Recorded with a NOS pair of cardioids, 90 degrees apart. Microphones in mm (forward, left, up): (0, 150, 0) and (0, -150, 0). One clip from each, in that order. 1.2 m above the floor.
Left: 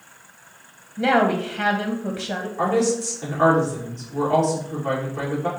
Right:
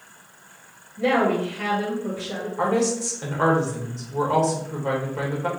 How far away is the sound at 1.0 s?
About 0.9 m.